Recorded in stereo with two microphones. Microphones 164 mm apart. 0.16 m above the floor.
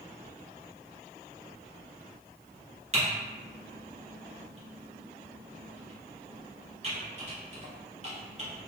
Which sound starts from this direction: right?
Typing on a keyboard, at 2.9 s.